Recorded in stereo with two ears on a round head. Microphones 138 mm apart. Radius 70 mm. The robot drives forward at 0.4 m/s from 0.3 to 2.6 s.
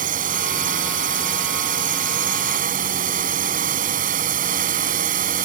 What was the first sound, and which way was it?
A drone, 55° right (ahead or behind).